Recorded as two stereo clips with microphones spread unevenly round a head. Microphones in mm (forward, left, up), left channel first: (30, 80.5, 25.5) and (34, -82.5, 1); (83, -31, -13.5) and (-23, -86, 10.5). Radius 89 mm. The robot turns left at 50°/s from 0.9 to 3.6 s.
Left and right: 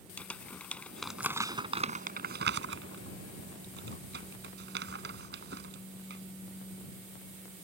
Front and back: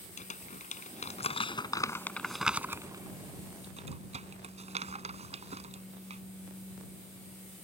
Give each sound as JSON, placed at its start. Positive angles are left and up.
{"t": 0.2, "sound": "crumpling", "azimuth_deg": 10}